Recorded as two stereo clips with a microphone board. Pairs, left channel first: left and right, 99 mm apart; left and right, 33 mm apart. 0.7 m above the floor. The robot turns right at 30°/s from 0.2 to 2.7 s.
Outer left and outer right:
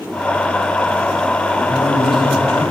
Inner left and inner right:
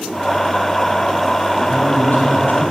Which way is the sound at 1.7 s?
60° left (ahead or behind).